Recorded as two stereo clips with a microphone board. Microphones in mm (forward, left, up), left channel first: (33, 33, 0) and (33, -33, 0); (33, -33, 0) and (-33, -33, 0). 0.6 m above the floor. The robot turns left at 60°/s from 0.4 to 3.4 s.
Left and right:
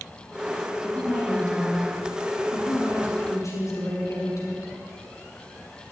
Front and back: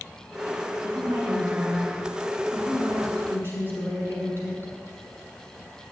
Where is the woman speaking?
150° right, 7 m; by 4.7 s 50° left, 7 m.